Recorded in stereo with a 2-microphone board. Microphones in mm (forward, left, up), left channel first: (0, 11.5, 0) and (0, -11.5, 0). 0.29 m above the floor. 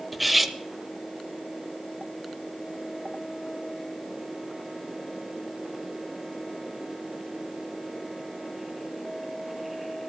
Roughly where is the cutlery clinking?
Centre.